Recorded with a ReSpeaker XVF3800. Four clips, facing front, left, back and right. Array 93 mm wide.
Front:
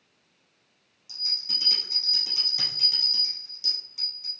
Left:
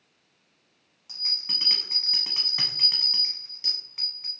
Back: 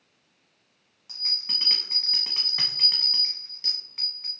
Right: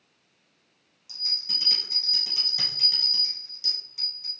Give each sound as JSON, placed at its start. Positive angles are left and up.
{"t": 1.1, "sound": "a bell", "azimuth_deg": 135, "distance_m": 1.3}